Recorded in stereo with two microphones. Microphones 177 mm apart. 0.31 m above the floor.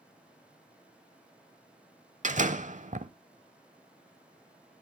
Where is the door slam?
45° right (ahead or behind), 0.8 m.